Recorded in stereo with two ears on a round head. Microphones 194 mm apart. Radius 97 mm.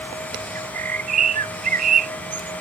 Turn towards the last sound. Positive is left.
turn(degrees=-40)  # may be behind; listen again after turning